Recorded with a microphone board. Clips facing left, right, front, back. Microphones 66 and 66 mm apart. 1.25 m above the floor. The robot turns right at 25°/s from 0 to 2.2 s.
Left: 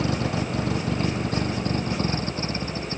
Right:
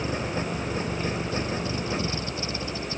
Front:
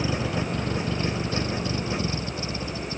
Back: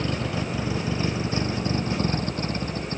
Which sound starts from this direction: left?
A vehicle, at 0.0 s.